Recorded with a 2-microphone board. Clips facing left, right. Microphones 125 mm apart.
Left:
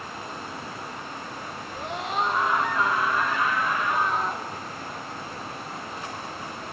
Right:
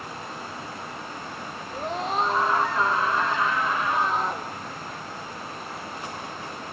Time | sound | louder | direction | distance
1.7 | a scream | right 2 dB | 40° right (ahead or behind) | 4.5 m